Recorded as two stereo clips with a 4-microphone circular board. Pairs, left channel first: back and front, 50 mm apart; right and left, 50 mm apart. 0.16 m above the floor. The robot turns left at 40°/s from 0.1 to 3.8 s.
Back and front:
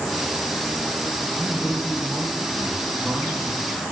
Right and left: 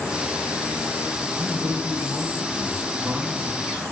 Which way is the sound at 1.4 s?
115° left.